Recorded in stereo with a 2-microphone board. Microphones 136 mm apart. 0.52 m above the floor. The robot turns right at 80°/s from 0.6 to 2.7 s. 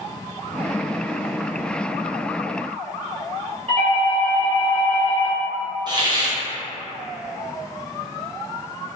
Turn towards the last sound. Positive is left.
turn(degrees=-35)  # may be behind; listen again after turning